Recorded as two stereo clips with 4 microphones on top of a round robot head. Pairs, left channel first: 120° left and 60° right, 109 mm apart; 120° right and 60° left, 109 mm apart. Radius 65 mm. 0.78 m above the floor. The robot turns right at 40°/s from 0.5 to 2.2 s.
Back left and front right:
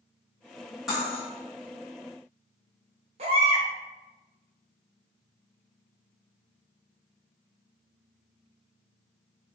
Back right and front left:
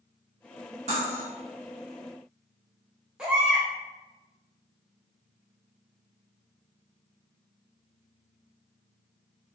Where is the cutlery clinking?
30° left, 1.0 m; by 1.2 s 45° left, 1.0 m.